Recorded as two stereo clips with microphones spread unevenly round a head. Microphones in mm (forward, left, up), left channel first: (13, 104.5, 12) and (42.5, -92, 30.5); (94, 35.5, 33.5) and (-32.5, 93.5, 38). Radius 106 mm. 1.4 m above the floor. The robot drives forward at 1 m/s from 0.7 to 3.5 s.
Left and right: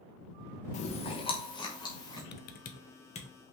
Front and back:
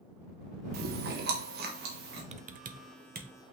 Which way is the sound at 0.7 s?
160° left.